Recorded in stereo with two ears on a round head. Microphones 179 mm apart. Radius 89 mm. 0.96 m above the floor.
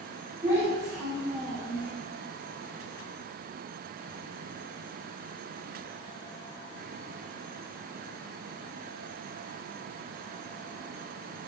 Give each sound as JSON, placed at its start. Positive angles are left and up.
{"t": 0.4, "sound": "a child speaking", "side_deg": -15, "distance_m": 1.6}